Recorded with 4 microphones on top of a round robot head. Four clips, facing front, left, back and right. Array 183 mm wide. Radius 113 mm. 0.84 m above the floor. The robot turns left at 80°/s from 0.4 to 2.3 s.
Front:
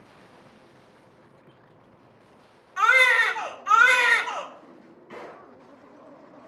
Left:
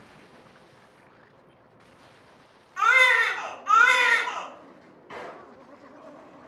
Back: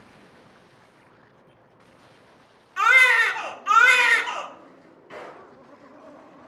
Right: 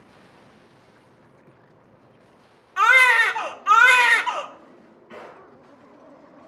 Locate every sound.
2.8 s a baby crying: 105° right, 0.7 m
4.6 s a drawer: 95° left, 4.5 m